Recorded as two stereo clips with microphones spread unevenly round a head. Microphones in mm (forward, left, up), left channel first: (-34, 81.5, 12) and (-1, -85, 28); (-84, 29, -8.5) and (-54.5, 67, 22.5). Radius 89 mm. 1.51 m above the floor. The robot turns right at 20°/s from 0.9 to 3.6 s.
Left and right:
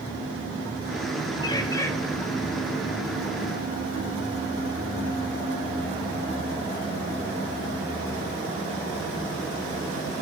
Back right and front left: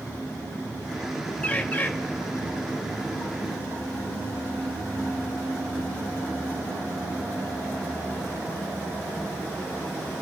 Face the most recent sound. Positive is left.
turn(degrees=-150)